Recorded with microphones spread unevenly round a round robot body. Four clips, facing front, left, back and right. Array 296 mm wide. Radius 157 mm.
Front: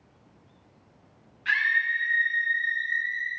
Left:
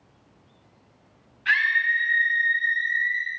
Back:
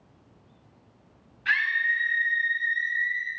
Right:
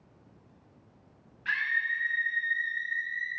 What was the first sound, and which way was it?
A scream, 170° left.